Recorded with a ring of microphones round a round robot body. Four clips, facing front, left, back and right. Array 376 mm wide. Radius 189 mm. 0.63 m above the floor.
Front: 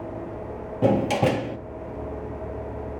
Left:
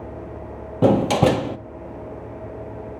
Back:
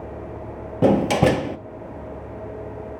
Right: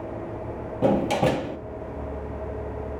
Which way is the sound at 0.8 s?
125° left.